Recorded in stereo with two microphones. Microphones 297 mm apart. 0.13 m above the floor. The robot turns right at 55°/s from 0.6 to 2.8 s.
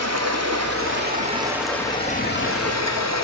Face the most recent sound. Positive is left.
turn(degrees=60)